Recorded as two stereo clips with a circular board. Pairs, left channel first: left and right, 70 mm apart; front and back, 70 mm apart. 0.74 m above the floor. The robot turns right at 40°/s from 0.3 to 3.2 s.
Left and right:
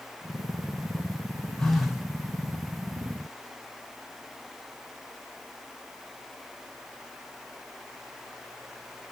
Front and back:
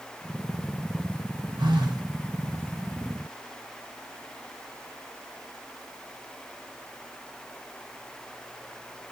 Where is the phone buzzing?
175° left, 1.2 m; by 2.0 s 170° right, 1.2 m.